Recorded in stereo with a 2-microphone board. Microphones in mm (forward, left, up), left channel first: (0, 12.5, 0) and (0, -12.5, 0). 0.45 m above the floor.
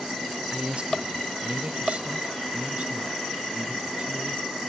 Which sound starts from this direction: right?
A man speaking, at 0.5 s.